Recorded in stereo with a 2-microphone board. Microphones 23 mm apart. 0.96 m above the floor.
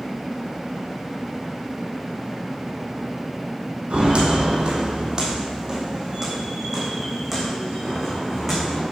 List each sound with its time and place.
3.9 s footsteps: 50° right (ahead or behind), 2.5 m; by 8.8 s 10° left (ahead or behind), 5 m